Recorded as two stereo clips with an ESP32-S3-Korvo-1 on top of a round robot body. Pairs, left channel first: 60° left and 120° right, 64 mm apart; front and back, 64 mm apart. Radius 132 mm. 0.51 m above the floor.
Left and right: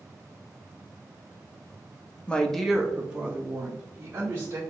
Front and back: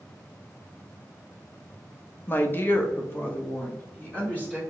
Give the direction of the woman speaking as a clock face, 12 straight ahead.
12 o'clock.